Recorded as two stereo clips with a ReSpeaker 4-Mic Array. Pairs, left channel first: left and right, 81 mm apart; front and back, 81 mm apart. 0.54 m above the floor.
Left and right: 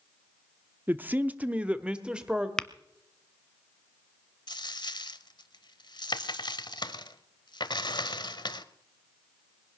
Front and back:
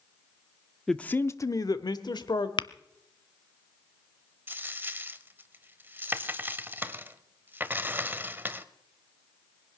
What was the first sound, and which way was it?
A man speaking, 80° right.